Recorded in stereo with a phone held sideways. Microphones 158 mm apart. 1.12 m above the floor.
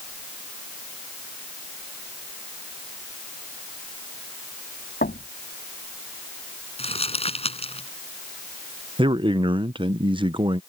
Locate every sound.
5.0 s knocking: 80° left
6.8 s crumpling: 40° left (ahead or behind)
9.0 s a man speaking: 35° right (ahead or behind)